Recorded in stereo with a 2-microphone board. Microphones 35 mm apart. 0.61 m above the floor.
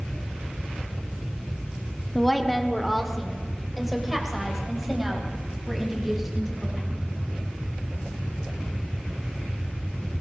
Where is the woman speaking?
5° left (ahead or behind), 1.4 m; by 7.1 s 5° right (ahead or behind), 6 m.